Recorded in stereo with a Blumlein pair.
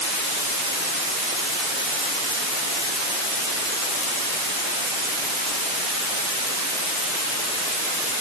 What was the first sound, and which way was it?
Only background noise.